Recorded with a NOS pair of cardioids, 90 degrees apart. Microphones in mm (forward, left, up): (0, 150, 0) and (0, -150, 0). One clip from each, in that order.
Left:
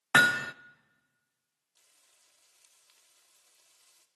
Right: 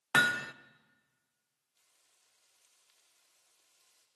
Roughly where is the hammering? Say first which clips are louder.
Left 5 dB; ahead.